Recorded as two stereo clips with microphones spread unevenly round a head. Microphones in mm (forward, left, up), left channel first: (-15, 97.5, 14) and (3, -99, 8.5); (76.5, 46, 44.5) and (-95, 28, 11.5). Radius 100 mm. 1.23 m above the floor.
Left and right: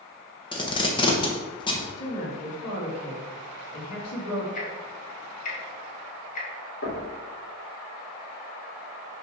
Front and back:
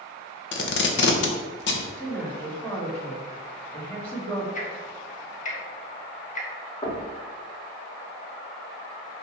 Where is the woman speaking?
85° left, 2.5 m.